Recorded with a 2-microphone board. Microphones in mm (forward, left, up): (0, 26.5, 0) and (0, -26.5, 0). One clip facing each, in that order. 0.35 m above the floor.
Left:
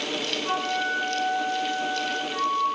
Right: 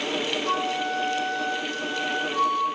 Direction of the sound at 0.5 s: 30° left (ahead or behind).